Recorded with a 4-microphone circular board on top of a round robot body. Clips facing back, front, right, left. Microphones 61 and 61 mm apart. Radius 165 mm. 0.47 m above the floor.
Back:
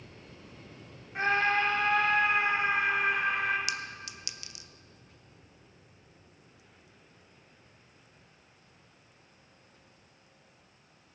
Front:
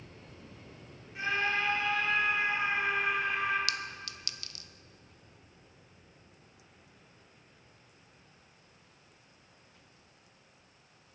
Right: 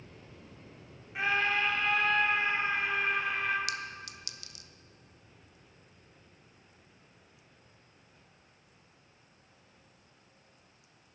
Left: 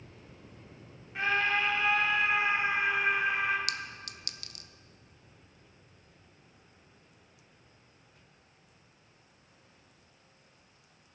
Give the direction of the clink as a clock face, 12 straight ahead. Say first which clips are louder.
Back 1 dB, right 1 dB; 8 o'clock.